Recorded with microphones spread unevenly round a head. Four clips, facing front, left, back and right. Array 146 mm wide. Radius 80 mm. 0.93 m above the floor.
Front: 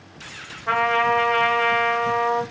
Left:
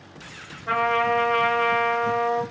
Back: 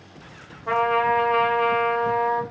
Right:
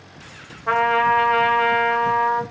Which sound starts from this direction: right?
A trumpet, at 0.7 s.